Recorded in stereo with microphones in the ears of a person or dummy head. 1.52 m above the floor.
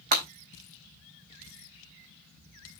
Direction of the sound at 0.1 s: 50° right (ahead or behind).